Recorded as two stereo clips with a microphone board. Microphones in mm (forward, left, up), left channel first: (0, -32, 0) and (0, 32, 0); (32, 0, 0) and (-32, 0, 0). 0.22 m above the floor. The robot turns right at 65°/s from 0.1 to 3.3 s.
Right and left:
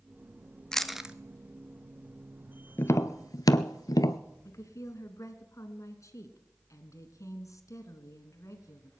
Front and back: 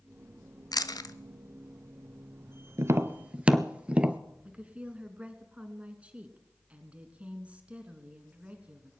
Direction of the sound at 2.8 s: 140° right.